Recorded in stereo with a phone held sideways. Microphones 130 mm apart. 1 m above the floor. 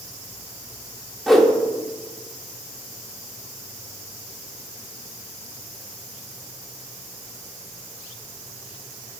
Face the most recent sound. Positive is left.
turn(degrees=0)  # may be behind; listen again after turning